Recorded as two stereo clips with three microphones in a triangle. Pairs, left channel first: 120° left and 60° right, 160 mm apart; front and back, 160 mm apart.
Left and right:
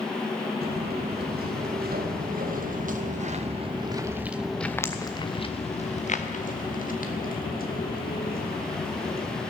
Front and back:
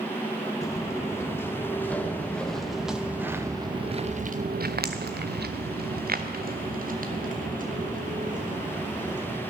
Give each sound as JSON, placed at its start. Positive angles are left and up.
{"t": 0.6, "sound": "footsteps", "azimuth_deg": -70, "distance_m": 2.0}